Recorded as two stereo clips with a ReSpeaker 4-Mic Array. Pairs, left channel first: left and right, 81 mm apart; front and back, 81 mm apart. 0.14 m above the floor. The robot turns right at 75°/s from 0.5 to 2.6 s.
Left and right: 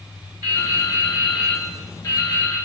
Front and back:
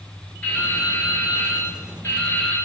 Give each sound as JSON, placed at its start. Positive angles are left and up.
{"t": 0.4, "sound": "dripping", "azimuth_deg": -65, "distance_m": 1.0}